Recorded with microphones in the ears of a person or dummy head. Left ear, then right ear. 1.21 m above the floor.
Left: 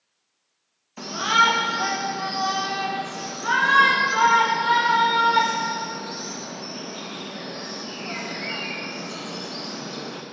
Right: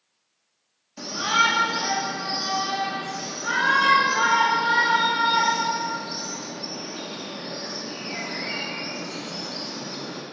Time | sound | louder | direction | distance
1.0 | a shout | left 2 dB | 30° left (ahead or behind) | 1.2 m